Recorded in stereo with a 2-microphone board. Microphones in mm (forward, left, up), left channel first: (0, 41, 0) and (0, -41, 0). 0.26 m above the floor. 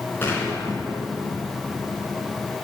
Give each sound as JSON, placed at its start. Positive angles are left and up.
{"t": 0.2, "sound": "an explosion", "side_deg": 25, "distance_m": 3.5}